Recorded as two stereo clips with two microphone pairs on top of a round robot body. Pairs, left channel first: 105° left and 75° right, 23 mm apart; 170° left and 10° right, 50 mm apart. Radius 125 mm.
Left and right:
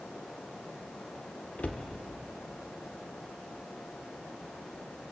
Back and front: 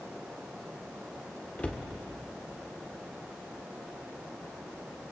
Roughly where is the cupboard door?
Left.